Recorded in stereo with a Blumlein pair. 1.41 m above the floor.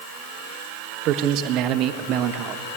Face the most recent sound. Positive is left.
turn(degrees=-35)